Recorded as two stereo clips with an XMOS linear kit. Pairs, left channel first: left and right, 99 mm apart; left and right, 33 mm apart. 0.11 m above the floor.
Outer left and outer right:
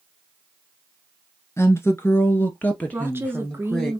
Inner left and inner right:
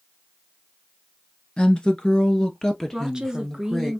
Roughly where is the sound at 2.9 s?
Right.